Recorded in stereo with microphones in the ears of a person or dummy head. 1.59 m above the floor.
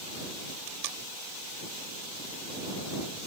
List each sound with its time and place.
0.7 s tape being pulled: 65° right (ahead or behind)